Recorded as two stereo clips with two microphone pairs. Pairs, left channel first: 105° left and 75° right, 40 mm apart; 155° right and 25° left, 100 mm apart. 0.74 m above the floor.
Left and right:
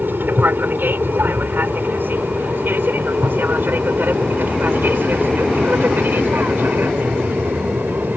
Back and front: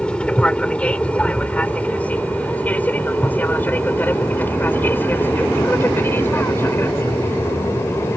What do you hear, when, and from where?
0.0 s an aircraft: 75° right; by 8.2 s 90° right